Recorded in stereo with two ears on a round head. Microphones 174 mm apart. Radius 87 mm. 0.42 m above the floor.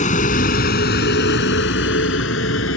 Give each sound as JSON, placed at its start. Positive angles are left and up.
{"t": 0.0, "sound": "a vehicle", "side_deg": 45}